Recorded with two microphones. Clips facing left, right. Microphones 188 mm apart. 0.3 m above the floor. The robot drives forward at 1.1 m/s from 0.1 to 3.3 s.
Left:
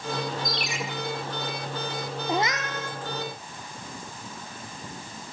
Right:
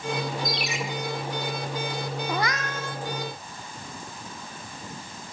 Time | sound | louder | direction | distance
0.5 | a ringtone | right 2 dB | centre (ahead or behind) | 5 m
2.3 | a cat meowing | left 4 dB | 20° left (ahead or behind) | 2 m